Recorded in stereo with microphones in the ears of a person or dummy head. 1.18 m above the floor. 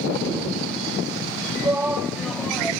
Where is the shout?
15° right (ahead or behind); by 2.7 s 5° left (ahead or behind).